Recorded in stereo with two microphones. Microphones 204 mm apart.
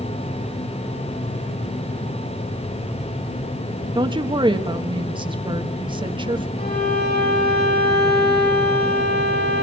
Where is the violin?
50° left (ahead or behind), 9.5 m.